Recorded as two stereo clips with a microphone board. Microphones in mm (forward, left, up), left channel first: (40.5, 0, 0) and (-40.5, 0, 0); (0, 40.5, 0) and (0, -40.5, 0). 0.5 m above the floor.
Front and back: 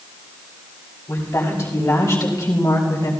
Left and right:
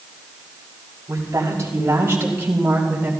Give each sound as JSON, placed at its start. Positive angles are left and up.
{"t": 1.1, "sound": "a woman speaking", "azimuth_deg": -45, "distance_m": 3.0}